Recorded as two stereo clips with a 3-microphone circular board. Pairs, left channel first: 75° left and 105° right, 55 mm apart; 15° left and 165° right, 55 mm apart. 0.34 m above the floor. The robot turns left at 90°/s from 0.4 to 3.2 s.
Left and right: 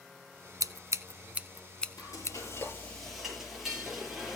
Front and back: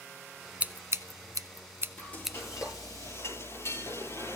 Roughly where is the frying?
Left.